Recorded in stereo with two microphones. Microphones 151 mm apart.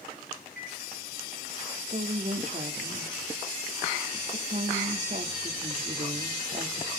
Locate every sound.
0.6 s a microwave: 80° left, 4.5 m
1.9 s a woman speaking: 50° right (ahead or behind), 1.6 m